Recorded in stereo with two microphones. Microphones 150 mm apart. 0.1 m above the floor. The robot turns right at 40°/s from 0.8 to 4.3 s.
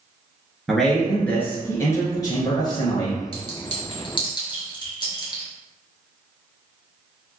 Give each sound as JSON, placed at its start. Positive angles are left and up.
{"t": 0.7, "sound": "a man speaking", "side_deg": 0, "distance_m": 1.3}
{"t": 3.3, "sound": "a clink", "side_deg": 40, "distance_m": 1.4}